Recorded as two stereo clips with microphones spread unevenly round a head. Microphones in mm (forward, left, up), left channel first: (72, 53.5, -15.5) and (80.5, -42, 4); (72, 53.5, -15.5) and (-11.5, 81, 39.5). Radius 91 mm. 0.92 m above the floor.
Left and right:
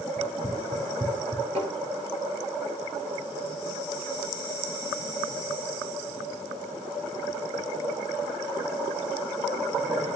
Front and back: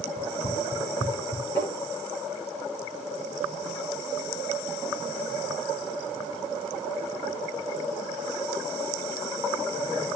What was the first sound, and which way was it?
Running footsteps, 30° right.